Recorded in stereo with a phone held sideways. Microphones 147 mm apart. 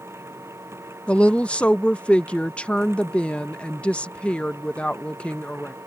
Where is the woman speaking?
10° left (ahead or behind).